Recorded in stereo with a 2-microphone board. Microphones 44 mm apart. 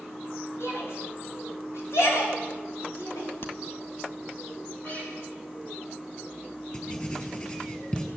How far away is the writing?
About 5.5 m.